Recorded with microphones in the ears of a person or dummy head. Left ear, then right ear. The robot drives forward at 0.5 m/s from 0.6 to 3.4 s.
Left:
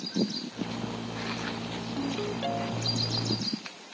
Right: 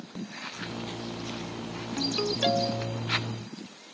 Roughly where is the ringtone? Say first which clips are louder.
Right 6 dB; right.